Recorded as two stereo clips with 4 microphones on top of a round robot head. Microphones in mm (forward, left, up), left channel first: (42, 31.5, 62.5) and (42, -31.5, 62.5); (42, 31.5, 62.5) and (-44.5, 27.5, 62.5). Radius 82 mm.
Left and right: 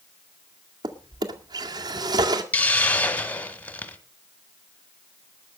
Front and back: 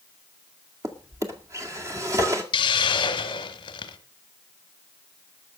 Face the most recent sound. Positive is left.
turn(degrees=30)